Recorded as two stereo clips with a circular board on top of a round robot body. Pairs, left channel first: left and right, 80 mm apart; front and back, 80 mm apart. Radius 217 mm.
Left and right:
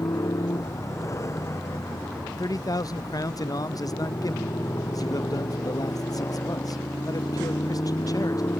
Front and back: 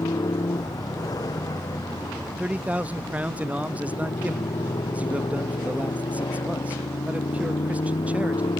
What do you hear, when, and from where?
0.0 s a motorcycle: 40° left; by 8.6 s 30° left
2.4 s a man speaking: 110° left